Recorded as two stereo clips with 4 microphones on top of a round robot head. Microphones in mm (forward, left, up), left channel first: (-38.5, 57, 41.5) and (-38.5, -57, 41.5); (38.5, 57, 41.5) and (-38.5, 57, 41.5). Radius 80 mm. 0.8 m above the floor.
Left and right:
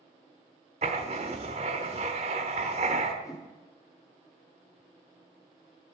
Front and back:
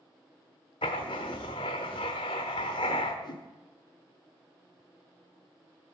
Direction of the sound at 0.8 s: 40° right.